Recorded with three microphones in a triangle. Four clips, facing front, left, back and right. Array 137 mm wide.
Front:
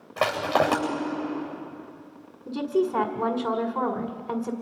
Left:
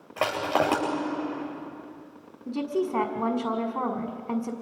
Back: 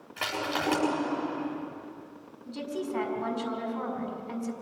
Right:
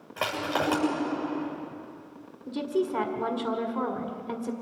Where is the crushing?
45° left, 8.5 m.